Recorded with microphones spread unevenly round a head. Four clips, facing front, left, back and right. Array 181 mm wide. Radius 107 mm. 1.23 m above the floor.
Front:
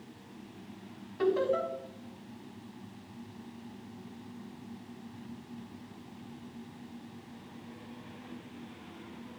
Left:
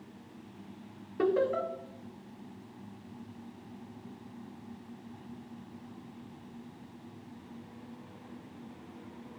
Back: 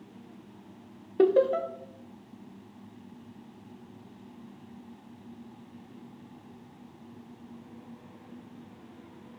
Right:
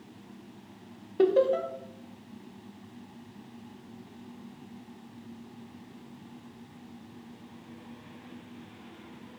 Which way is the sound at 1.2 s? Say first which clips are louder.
Right 5 dB, back 6 dB; 170° right.